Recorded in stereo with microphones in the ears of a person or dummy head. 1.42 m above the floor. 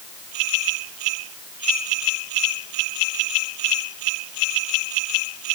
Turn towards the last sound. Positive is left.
No sound to turn to.